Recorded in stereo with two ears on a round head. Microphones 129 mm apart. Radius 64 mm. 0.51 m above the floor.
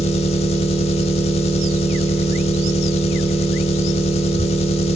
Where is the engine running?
45° left (ahead or behind), 0.7 m.